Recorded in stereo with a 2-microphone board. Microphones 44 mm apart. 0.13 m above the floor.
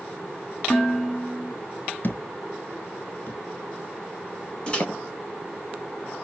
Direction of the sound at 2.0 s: 50° left (ahead or behind).